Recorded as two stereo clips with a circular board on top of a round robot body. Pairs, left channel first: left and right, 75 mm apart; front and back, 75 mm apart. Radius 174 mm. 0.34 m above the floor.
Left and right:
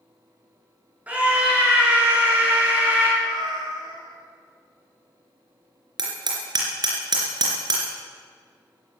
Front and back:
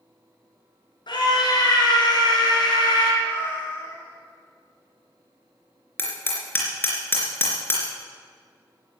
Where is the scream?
15° right, 6 m.